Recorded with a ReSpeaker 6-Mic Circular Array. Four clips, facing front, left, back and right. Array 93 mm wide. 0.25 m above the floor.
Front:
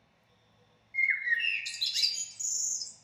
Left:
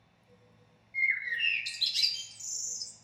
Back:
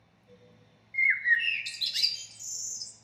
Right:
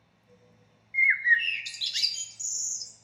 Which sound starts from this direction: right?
A bird, at 0.9 s.